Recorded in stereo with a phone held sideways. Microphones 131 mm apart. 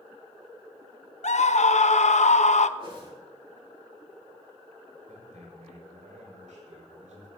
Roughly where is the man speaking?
Right.